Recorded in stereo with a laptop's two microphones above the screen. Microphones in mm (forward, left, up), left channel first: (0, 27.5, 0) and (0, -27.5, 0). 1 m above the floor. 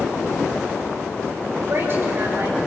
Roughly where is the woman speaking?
Right.